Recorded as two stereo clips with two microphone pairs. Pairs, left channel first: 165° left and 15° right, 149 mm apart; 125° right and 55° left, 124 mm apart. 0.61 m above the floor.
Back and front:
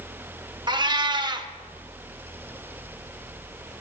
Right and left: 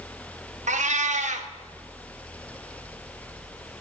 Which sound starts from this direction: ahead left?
A cat meowing, at 0.7 s.